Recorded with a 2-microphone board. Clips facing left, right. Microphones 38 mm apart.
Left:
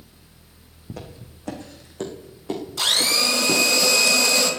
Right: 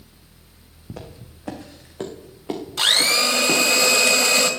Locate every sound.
0.9 s footsteps: 10° right (ahead or behind), 2.5 m; by 3.6 s 30° right (ahead or behind), 4 m
2.8 s a blender: 45° right (ahead or behind), 2 m